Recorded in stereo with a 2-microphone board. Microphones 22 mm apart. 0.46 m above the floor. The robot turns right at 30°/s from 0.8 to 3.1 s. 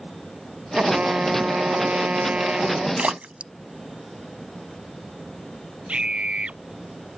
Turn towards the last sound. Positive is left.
turn(degrees=-55)  # may be behind; listen again after turning